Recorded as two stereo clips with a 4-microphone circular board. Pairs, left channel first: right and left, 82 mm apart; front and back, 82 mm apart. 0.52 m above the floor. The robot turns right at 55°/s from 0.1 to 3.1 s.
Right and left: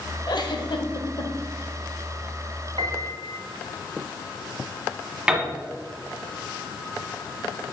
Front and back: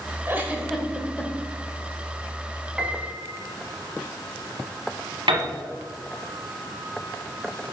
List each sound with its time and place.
0.3 s a giggle: 120° right, 0.9 m; by 1.3 s 60° right, 0.9 m
2.8 s a piano: 95° left, 0.7 m; by 3.4 s 115° left, 0.7 m
5.3 s a piano: 165° left, 1.1 m